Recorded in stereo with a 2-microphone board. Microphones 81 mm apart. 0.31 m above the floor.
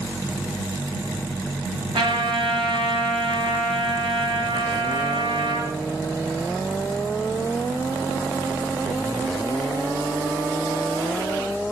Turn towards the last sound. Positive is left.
turn(degrees=-70)  # may be behind; listen again after turning